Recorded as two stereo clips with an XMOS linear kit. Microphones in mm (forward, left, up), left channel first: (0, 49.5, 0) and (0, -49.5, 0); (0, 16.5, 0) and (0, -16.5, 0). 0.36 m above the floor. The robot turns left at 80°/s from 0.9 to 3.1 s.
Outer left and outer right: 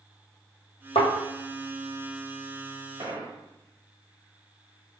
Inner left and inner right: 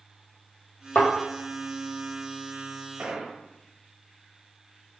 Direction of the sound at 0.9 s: 85° left.